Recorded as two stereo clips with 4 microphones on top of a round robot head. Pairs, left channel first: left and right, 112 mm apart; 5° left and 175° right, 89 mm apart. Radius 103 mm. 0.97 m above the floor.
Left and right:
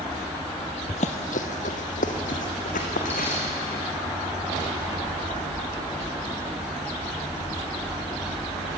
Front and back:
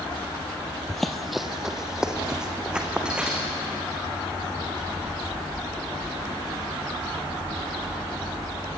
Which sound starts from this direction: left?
Running footsteps, at 0.9 s.